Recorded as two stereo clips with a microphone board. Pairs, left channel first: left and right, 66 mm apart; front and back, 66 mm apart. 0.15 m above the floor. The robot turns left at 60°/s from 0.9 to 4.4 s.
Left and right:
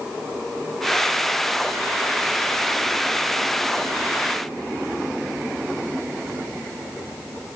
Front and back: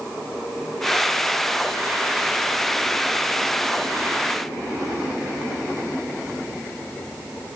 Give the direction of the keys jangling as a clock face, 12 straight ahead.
I don't hear keys jangling.